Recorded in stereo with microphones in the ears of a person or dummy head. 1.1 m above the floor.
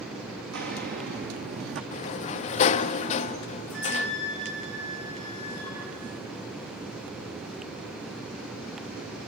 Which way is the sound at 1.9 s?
40° left (ahead or behind).